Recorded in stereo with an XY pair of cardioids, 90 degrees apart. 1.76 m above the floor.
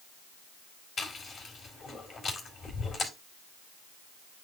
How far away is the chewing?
About 3.5 m.